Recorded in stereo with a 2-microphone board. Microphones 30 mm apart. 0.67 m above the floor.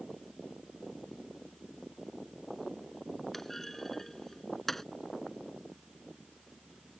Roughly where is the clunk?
Centre.